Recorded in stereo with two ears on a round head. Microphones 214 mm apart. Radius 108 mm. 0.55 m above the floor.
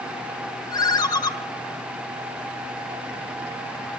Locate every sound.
0.7 s a ringtone: 20° left (ahead or behind), 1.2 m